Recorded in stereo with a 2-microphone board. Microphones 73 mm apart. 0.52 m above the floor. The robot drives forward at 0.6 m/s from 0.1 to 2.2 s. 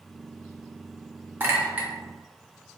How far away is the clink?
About 0.7 m.